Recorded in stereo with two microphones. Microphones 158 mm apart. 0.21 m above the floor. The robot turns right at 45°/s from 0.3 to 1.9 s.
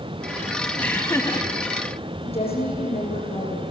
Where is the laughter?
15° left, 1.9 m; by 1.5 s 45° left, 1.9 m.